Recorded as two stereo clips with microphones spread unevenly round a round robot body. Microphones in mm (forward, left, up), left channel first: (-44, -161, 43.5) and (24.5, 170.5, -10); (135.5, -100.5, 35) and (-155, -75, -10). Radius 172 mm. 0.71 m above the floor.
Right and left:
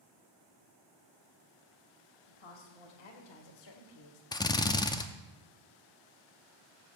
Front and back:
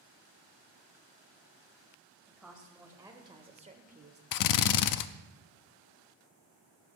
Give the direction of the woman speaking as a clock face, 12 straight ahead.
3 o'clock.